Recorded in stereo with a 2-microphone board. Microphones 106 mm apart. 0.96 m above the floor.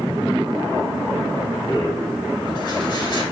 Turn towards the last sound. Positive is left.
turn(degrees=50)  # may be behind; listen again after turning